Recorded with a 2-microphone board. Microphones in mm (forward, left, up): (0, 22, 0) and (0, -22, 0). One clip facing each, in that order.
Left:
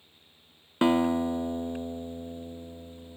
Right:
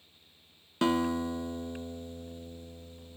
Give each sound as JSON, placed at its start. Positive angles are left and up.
{"t": 0.8, "sound": "a guitar", "side_deg": 25, "distance_m": 0.5}